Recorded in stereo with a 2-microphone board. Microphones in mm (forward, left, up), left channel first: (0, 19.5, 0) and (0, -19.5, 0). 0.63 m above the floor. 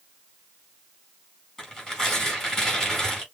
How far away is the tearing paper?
About 3.5 m.